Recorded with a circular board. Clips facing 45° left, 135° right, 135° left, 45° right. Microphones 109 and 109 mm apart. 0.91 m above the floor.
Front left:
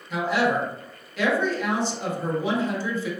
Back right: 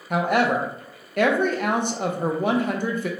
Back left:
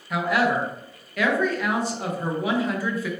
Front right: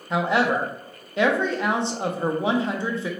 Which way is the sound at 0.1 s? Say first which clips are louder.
Back right 2 dB, front right 1 dB; 105° right.